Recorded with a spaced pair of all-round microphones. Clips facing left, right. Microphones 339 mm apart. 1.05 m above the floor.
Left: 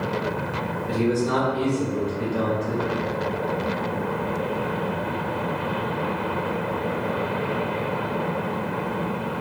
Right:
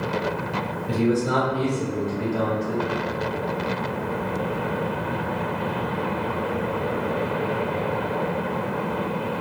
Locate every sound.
0.9 s a man speaking: centre (ahead or behind), 1.9 m; by 2.9 s 35° left (ahead or behind), 1.2 m